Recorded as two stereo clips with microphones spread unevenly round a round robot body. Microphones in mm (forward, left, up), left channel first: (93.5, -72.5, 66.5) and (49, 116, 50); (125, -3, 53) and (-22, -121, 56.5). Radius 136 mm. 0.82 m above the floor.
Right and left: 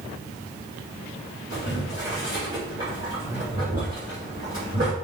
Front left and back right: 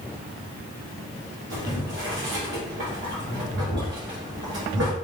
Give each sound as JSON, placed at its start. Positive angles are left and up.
{"t": 1.5, "sound": "boiling", "azimuth_deg": 175, "distance_m": 2.0}